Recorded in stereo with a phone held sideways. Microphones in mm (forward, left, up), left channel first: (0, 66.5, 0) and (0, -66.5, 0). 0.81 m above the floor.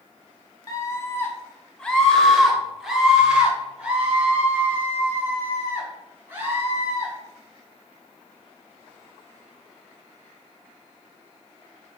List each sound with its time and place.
0.7 s a scream: 30° left (ahead or behind), 0.9 m; by 7.1 s 15° right (ahead or behind), 4 m